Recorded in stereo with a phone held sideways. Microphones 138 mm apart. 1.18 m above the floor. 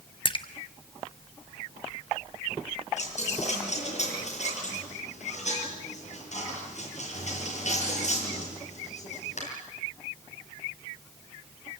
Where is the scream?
I don't hear a scream.